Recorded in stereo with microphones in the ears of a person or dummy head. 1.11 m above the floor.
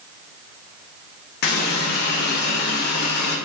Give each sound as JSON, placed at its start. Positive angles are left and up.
{"t": 1.4, "sound": "a running tap", "side_deg": 60, "distance_m": 1.2}